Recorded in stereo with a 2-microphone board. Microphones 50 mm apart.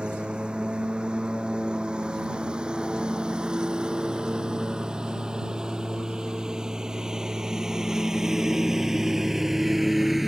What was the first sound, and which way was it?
A lawn mower, 20° right (ahead or behind).